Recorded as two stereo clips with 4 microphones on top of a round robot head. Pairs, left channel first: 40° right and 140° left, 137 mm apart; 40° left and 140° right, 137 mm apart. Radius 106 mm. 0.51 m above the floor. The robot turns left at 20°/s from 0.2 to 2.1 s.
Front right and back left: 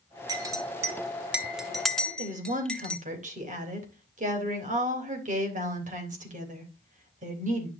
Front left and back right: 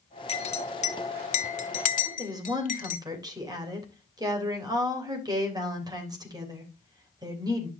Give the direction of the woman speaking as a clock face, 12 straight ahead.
7 o'clock.